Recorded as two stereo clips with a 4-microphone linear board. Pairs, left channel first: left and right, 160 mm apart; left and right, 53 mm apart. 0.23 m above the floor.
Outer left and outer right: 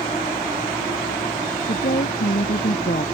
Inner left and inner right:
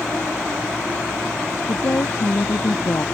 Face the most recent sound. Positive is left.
turn(degrees=65)  # may be behind; listen again after turning